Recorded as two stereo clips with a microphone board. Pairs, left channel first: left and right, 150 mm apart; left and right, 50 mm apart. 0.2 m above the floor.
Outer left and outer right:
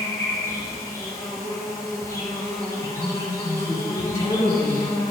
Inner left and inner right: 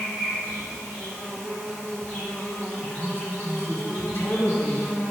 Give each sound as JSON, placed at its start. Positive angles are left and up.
{"t": 0.0, "sound": "an insect", "side_deg": 20, "distance_m": 2.0}
{"t": 2.8, "sound": "a man speaking", "side_deg": 50, "distance_m": 3.0}